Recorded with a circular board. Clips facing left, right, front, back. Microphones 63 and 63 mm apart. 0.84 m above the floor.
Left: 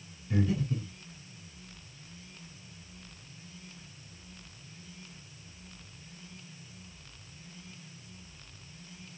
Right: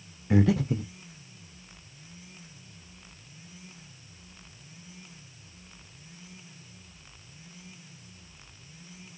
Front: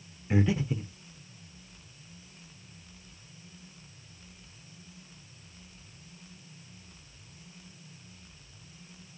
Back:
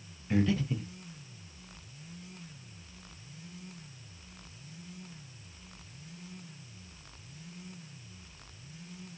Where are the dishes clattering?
I don't hear dishes clattering.